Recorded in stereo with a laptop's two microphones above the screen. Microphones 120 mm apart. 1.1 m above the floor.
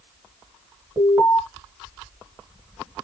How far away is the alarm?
About 1.7 m.